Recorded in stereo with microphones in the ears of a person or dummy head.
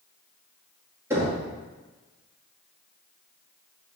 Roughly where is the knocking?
Centre.